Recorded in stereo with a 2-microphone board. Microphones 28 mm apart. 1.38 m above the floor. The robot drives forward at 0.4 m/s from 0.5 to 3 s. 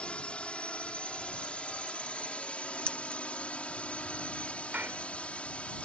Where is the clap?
85° right.